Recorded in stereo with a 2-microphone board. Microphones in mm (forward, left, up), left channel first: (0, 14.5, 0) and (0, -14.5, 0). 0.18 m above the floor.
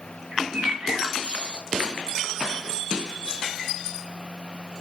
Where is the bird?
45° right (ahead or behind), 0.7 m.